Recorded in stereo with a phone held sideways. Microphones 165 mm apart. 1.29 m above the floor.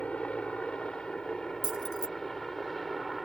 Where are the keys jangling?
75° left (ahead or behind).